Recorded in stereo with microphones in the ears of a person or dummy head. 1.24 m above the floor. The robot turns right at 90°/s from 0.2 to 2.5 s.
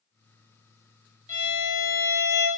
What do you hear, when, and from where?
1.3 s a violin: 20° left, 1.4 m; by 2.5 s 130° left, 1.4 m